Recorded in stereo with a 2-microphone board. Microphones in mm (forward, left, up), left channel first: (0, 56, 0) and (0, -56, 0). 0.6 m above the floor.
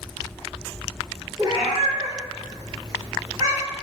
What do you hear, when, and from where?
1.4 s a cat meowing: 35° right (ahead or behind), 1.5 m